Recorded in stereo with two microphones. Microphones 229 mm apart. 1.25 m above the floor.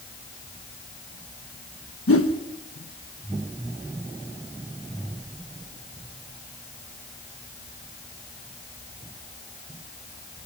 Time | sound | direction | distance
2.1 | a whoosh | 75° left (ahead or behind) | 1.2 m